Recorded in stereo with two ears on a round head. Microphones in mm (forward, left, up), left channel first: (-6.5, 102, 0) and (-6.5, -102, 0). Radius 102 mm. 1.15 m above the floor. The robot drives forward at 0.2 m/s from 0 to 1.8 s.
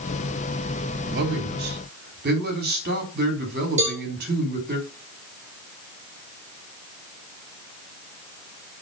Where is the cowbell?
30° right (ahead or behind), 4 m.